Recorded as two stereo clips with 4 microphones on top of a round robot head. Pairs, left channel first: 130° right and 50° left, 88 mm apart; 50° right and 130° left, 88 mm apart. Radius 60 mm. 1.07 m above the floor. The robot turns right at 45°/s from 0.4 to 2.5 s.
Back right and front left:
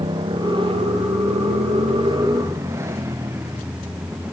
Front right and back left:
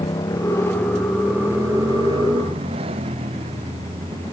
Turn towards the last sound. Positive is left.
turn(degrees=115)